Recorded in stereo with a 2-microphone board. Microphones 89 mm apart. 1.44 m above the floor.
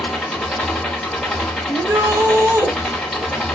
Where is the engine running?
Centre (ahead or behind), 1.4 m.